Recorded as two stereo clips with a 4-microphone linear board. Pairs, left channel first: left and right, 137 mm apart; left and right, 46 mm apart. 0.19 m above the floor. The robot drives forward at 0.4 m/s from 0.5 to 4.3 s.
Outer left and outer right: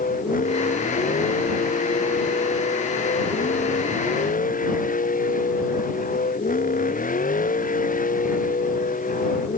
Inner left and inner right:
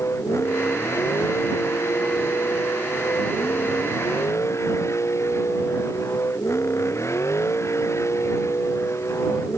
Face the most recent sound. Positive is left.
turn(degrees=85)